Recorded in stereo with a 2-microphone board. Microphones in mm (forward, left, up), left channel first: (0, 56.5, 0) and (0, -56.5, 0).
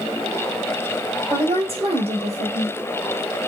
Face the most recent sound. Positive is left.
turn(degrees=-65)  # may be behind; listen again after turning